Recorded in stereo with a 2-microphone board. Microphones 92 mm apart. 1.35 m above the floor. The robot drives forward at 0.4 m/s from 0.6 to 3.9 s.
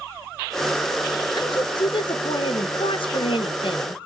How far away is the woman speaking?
About 1.4 m.